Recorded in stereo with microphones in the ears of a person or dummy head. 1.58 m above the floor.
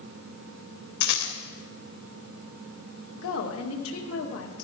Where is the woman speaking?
75° left (ahead or behind), 2.5 m.